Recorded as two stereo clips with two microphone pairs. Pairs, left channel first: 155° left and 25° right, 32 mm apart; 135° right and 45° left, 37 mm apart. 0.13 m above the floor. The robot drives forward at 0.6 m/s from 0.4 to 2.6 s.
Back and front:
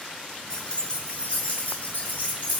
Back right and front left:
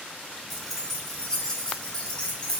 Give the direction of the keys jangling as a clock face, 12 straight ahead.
8 o'clock.